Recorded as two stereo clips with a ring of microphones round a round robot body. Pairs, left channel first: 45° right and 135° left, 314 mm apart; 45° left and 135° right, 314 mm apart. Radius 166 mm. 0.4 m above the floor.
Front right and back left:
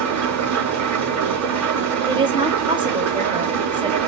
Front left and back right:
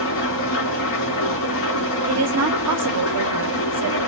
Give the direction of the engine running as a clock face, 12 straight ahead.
9 o'clock.